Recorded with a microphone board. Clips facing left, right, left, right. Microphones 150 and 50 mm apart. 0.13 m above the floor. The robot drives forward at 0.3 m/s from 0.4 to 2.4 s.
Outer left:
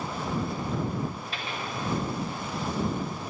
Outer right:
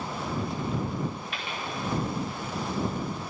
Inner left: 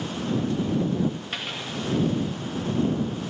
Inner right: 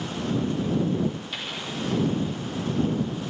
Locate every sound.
1.3 s a dropped coin: 35° left (ahead or behind), 1.9 m